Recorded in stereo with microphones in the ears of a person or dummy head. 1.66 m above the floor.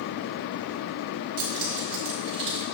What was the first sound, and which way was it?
Keys jangling, 45° right (ahead or behind).